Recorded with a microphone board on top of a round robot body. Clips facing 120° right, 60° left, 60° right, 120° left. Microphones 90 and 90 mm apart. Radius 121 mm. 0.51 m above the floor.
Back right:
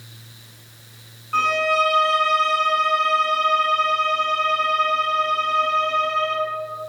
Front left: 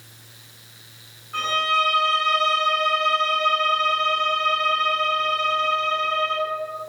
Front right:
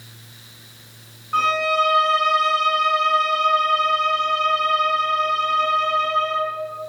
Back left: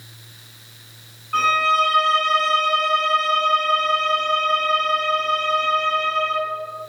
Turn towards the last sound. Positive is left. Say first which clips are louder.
# back right 3 dB, back left 1 dB
turn(degrees=-135)